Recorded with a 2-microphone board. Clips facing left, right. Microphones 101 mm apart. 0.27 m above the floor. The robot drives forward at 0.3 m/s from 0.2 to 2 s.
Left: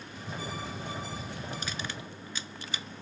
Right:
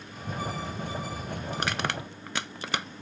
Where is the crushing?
75° right (ahead or behind).